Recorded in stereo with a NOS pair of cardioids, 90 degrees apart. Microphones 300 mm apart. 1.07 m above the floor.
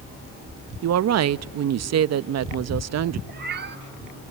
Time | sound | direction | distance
0.8 | a woman speaking | 55° right | 1.0 m
3.3 | a cat meowing | 35° right | 1.1 m